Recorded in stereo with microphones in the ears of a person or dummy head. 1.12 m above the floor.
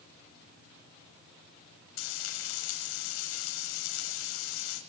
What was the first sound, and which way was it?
Frying, 80° left.